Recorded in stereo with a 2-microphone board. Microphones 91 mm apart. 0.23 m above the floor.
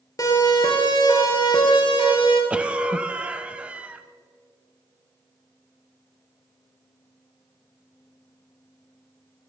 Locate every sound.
0.2 s a siren: 40° left (ahead or behind), 4.5 m; by 2.4 s 65° left (ahead or behind), 5 m
2.5 s a cough: 15° right (ahead or behind), 1.0 m